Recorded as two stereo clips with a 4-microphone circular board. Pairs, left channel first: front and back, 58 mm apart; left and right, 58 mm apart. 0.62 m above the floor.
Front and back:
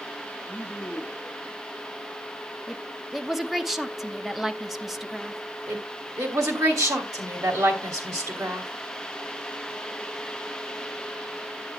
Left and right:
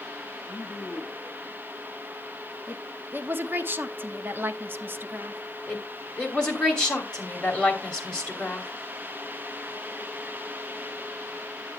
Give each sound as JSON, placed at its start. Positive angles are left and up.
{"t": 0.5, "sound": "a woman speaking", "azimuth_deg": 50, "distance_m": 1.3}
{"t": 2.7, "sound": "a woman speaking", "azimuth_deg": -95, "distance_m": 0.8}
{"t": 5.7, "sound": "a woman speaking", "azimuth_deg": 165, "distance_m": 2.5}